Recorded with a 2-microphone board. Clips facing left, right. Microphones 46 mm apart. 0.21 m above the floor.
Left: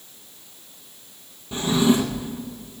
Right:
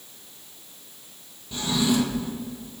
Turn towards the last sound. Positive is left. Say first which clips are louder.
# left 4 dB
turn(degrees=25)  # may be behind; listen again after turning